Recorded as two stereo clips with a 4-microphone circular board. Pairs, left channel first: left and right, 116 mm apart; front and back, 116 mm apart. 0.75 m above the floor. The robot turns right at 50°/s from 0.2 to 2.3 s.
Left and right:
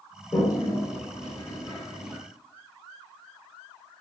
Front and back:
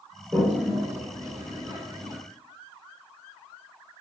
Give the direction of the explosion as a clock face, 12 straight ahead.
No explosion in this recording.